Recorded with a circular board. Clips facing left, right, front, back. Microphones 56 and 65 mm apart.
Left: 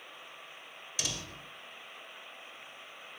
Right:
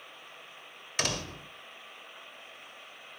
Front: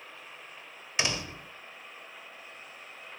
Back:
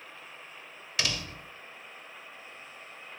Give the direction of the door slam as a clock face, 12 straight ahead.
2 o'clock.